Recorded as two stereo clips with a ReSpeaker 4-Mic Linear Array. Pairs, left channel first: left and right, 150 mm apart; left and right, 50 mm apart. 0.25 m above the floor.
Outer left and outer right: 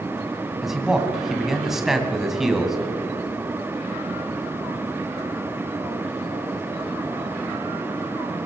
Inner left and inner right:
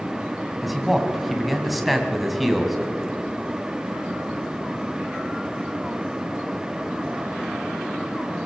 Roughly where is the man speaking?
Centre.